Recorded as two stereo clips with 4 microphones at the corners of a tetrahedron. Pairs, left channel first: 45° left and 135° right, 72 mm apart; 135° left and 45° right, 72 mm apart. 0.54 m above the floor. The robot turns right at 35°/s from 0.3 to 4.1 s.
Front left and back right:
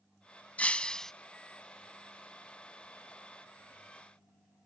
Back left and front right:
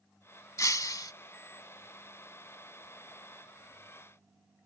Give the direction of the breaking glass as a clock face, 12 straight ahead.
8 o'clock.